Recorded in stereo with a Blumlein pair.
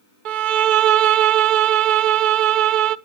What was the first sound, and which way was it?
A violin, 40° right.